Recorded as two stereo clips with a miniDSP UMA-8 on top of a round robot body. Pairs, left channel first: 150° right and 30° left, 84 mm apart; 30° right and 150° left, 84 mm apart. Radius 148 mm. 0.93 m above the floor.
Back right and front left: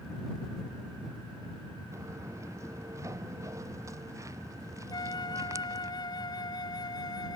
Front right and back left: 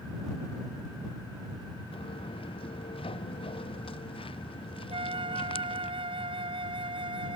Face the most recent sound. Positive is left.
turn(degrees=170)